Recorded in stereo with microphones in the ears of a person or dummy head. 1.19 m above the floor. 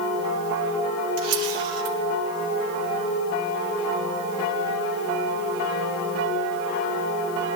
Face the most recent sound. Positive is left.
turn(degrees=-85)